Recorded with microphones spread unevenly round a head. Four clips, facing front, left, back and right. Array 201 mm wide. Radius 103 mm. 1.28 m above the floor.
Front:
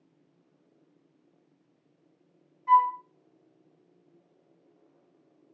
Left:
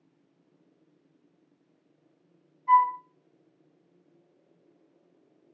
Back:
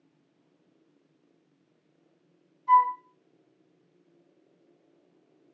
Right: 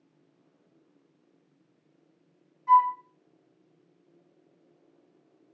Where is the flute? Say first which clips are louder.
Right 1 dB, back 1 dB; 65° right, 1.9 m.